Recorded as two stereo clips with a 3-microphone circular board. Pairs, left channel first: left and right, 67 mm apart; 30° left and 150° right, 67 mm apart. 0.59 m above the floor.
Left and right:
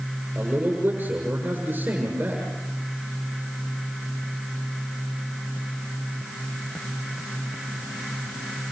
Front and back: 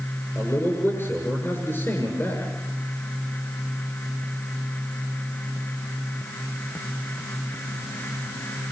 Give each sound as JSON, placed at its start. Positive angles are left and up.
{"t": 0.3, "sound": "a man speaking", "azimuth_deg": -25, "distance_m": 7.5}